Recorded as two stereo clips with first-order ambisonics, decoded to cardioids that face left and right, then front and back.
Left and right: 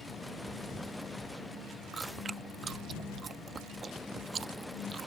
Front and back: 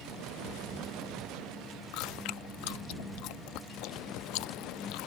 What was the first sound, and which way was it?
Chewing, 20° right.